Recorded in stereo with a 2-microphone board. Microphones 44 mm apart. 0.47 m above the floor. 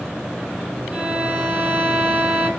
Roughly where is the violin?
Right.